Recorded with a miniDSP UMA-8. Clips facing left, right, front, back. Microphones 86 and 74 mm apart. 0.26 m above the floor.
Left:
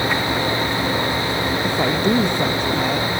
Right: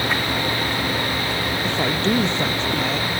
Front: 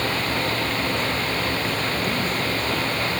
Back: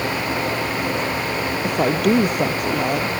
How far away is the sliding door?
I don't hear a sliding door.